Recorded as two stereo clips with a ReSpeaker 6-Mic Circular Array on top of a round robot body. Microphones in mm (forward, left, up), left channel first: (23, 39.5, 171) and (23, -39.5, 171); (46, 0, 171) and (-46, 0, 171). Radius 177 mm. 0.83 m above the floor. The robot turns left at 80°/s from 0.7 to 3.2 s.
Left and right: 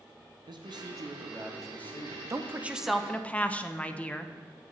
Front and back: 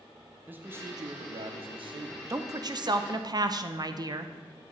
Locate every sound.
0.5 s a man speaking: 110° right, 0.9 m; by 2.2 s 130° left, 0.9 m
2.3 s a woman speaking: 130° right, 0.6 m; by 4.3 s 160° left, 0.6 m